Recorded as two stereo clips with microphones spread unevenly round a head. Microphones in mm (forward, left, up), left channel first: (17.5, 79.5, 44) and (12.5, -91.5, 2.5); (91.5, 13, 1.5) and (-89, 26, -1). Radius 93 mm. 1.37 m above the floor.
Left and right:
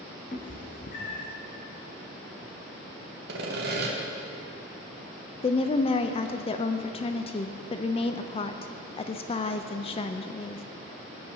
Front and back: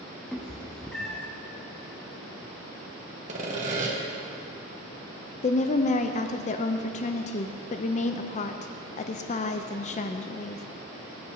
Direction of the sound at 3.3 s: 130° right.